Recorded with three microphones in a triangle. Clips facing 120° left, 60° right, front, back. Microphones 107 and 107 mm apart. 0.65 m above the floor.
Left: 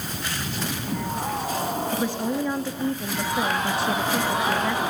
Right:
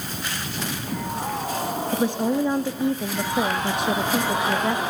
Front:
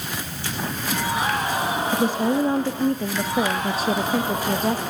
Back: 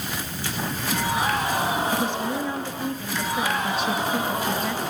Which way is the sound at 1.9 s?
Straight ahead.